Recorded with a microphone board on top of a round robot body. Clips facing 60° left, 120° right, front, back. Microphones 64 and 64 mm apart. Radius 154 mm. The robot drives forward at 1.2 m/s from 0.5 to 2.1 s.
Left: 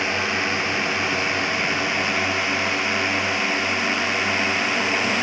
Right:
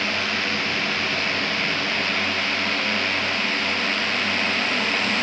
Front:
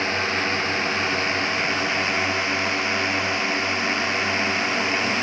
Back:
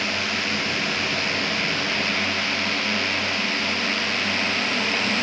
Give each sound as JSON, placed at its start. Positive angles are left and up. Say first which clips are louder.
{"t": 0.0, "sound": "a drone", "louder": "left 2 dB, front 3 dB", "azimuth_deg": 10}